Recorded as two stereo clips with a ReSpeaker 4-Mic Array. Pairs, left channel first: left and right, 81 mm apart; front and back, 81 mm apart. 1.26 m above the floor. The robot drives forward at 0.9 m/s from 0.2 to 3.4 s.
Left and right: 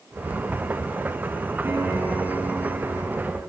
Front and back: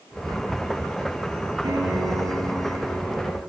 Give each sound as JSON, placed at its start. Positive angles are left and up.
{"t": 1.6, "sound": "a piano", "azimuth_deg": -140, "distance_m": 4.5}